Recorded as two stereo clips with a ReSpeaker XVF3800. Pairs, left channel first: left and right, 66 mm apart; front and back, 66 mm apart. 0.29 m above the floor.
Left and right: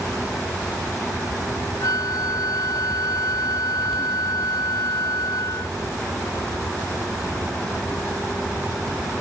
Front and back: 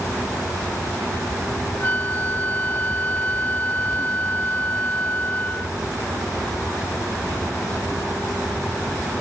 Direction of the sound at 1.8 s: 60° left.